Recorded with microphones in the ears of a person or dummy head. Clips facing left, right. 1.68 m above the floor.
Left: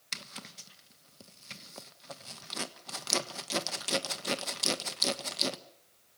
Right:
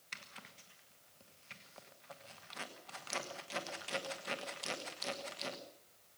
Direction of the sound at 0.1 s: 60° left (ahead or behind).